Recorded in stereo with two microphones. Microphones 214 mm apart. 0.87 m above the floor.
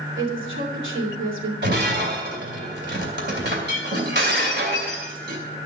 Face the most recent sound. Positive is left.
turn(degrees=-55)  # may be behind; listen again after turning